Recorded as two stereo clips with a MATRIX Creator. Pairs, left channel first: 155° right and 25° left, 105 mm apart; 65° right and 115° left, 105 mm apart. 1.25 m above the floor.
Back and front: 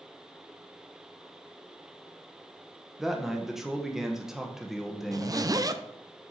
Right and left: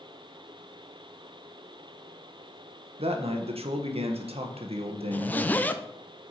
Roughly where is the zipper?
Ahead.